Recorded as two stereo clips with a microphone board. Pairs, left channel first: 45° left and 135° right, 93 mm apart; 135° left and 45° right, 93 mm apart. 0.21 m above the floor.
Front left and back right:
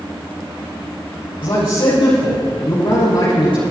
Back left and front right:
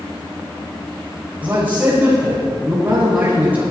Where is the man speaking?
30° left, 5.5 m.